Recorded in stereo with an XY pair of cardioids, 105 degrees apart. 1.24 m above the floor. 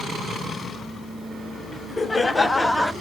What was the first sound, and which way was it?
Laughter, 30° left.